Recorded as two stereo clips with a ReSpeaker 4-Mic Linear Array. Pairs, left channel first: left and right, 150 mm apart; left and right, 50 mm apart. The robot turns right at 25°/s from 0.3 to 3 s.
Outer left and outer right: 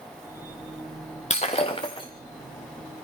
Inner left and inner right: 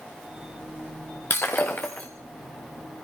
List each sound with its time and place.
1.3 s breaking glass: 50° left (ahead or behind), 3 m; by 2.1 s 30° left (ahead or behind), 3 m